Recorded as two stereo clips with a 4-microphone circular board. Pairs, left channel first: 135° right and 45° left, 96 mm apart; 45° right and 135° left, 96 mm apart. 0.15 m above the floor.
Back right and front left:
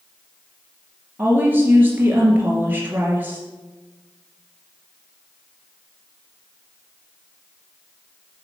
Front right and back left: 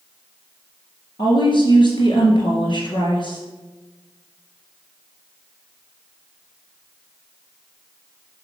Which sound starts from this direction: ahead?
A woman speaking, at 1.2 s.